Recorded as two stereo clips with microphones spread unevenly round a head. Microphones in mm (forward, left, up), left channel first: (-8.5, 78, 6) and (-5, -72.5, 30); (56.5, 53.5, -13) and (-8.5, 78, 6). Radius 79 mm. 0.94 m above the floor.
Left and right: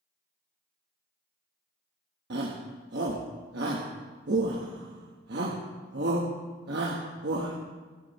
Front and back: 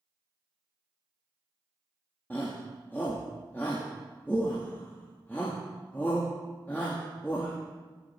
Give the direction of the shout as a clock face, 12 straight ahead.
3 o'clock.